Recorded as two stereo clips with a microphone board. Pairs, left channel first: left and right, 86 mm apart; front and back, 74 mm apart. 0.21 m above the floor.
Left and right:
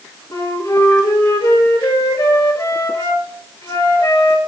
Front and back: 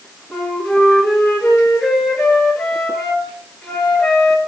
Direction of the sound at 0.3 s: 90° left.